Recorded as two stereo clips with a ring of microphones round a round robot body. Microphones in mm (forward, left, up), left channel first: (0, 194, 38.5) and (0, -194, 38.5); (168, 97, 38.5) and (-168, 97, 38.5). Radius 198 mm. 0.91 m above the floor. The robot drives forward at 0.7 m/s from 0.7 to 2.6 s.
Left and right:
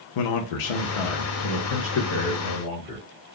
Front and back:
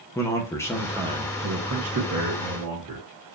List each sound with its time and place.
0.1 s a man speaking: 85° left, 0.7 m; by 3.0 s 150° left, 1.4 m